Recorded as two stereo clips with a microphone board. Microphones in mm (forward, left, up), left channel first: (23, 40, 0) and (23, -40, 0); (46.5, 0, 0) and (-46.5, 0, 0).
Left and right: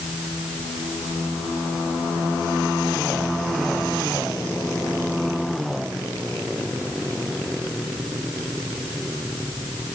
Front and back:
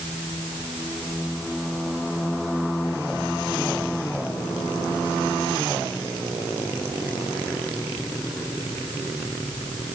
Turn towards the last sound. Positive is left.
No sound to turn to.